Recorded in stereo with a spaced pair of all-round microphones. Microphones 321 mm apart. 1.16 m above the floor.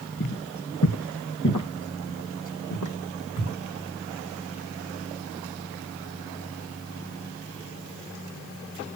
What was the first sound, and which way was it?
Footsteps, 55° left (ahead or behind).